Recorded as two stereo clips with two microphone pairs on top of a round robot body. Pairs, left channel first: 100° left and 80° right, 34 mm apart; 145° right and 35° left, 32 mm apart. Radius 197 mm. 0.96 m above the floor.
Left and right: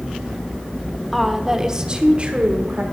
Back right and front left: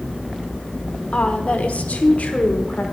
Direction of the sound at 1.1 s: 170° right.